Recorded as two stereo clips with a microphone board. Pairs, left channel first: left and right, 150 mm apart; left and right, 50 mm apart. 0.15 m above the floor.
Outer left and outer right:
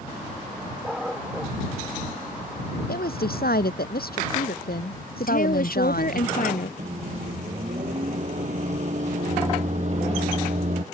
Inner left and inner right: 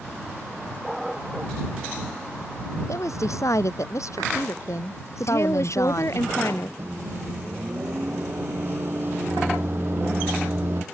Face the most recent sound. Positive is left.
turn(degrees=-50)  # may be behind; listen again after turning